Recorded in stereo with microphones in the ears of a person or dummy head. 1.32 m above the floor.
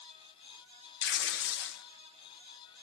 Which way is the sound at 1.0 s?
65° left (ahead or behind).